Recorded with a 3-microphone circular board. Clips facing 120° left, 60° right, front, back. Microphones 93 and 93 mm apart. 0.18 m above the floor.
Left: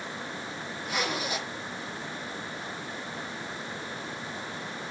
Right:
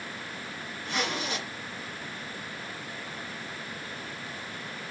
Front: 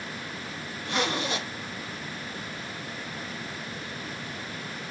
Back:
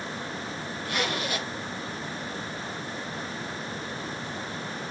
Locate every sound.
0.8 s a zipper: 40° left, 1.0 m